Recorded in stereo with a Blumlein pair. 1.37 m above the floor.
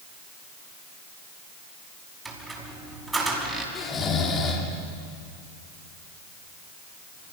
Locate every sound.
2.2 s a squeak: 10° right, 5.5 m
3.8 s snoring: 20° left, 3.5 m